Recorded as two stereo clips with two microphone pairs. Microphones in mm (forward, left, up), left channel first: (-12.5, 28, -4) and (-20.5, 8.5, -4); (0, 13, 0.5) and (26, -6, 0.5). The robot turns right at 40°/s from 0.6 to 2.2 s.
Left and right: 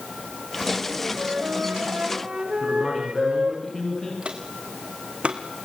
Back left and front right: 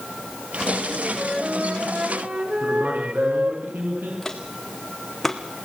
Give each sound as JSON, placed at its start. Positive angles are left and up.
{"t": 1.1, "sound": "a flute", "azimuth_deg": -125, "distance_m": 4.5}
{"t": 2.6, "sound": "a man speaking", "azimuth_deg": -15, "distance_m": 9.5}
{"t": 4.2, "sound": "footsteps", "azimuth_deg": -140, "distance_m": 3.5}